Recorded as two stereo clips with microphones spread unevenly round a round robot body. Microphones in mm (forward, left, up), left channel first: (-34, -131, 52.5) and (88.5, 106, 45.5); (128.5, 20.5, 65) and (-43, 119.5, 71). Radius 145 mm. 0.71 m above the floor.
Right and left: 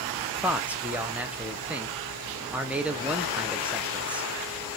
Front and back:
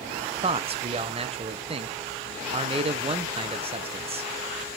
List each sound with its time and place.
0.4 s a man speaking: 140° left, 0.5 m